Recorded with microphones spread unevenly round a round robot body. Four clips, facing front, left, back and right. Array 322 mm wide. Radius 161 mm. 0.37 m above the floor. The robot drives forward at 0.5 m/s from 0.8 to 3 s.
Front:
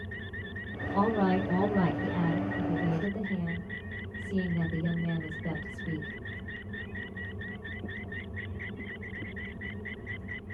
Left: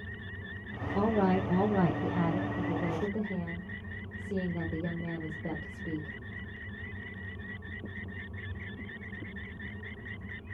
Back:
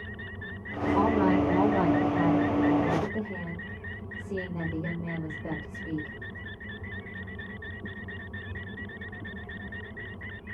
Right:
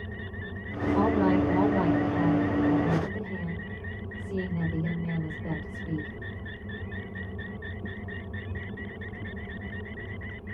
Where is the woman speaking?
30° left, 1.3 m; by 6.2 s 160° left, 1.4 m.